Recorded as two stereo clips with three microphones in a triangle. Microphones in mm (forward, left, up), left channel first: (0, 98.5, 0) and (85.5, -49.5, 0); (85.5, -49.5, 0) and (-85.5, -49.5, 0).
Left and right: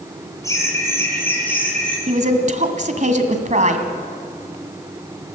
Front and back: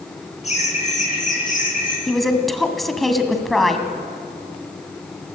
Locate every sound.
0.4 s laughter: 50° left, 8.5 m; by 2.0 s 35° left, 8.5 m
2.1 s a woman speaking: 90° right, 2.0 m